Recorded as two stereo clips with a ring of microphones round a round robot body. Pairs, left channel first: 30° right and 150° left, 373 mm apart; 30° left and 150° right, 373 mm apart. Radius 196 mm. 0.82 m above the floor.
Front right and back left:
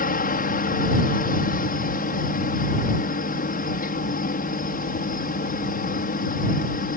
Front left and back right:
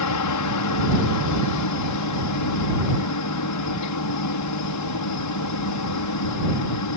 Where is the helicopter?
30° left.